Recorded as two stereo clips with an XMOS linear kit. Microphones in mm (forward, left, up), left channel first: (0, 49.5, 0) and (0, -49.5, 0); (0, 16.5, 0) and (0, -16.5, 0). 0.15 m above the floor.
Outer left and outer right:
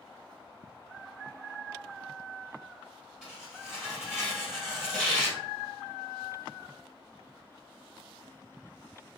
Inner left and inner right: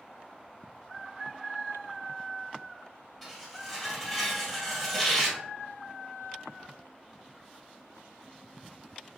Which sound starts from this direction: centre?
Tearing paper, at 3.2 s.